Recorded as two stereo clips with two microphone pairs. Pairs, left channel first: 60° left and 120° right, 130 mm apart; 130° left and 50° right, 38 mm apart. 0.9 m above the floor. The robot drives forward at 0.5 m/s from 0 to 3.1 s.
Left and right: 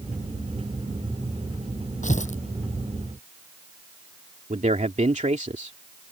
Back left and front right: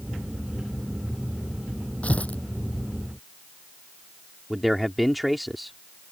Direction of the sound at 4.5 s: 135° right.